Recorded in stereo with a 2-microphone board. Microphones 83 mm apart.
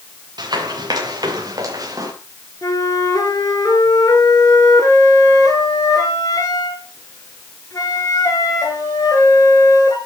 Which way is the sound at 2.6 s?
50° left (ahead or behind).